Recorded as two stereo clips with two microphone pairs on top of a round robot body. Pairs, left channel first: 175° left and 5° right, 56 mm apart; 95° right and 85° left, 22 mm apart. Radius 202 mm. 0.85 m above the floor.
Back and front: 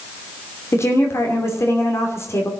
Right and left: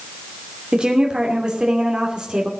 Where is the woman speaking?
130° left, 3 m.